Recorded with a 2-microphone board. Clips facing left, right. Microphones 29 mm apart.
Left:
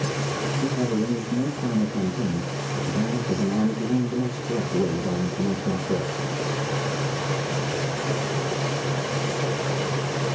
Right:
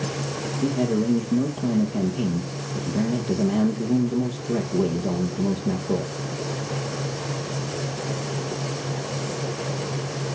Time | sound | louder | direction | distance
0.6 | a man speaking | right 4 dB | 50° right (ahead or behind) | 3.5 m